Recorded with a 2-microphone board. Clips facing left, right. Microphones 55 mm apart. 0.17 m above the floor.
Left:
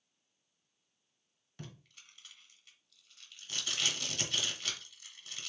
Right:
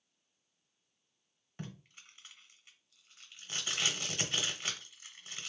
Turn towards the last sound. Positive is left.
turn(degrees=-25)  # may be behind; listen again after turning